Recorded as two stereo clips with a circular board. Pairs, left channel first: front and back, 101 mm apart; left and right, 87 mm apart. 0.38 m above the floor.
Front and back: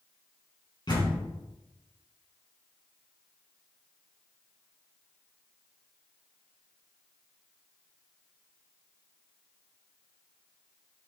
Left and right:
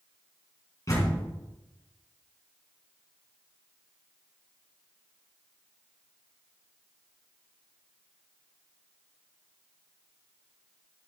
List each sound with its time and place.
0.9 s a door slam: 40° left, 2.5 m